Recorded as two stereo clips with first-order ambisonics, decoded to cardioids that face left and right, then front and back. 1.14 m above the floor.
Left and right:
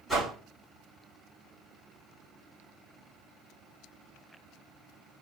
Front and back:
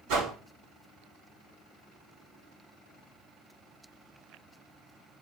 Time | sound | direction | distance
0.1 | a whoosh | straight behind | 2 m